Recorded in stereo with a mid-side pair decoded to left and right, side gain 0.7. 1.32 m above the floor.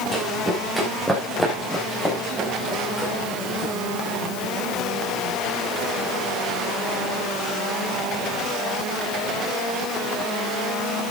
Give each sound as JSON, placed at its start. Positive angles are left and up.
{"t": 0.1, "sound": "running footsteps", "azimuth_deg": -5, "distance_m": 7.0}